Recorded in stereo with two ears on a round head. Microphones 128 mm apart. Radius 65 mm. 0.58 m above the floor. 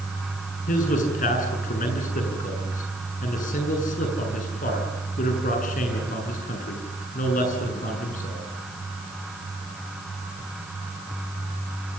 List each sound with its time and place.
0.7 s a man speaking: 60° left (ahead or behind), 8 m